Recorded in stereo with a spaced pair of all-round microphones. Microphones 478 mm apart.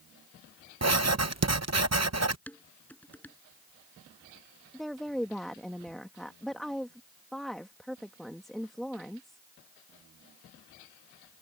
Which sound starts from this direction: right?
Writing, at 0.8 s.